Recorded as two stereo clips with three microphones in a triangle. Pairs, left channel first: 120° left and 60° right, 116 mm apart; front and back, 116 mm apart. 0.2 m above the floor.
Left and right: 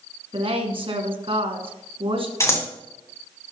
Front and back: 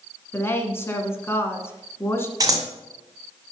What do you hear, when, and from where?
0.3 s a woman speaking: 60° right, 1.6 m
2.4 s scissors: 160° left, 1.7 m